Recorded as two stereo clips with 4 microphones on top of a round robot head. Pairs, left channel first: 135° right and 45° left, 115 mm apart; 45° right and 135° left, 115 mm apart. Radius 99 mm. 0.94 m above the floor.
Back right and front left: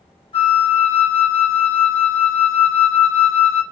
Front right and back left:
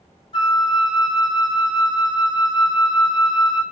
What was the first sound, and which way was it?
A flute, 90° right.